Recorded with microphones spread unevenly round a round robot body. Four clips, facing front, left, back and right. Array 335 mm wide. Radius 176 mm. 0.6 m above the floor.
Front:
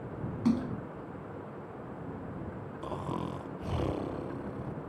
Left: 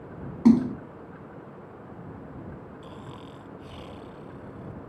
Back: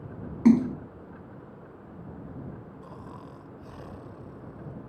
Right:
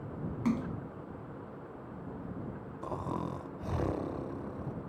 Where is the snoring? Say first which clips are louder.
Right 6 dB, front 8 dB; 45° right.